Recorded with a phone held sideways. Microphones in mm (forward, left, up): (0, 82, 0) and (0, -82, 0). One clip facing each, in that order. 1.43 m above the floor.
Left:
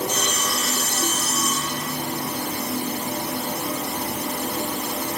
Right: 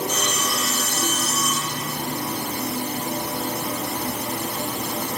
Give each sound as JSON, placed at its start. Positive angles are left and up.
{"t": 0.1, "sound": "sawing", "side_deg": 35, "distance_m": 1.5}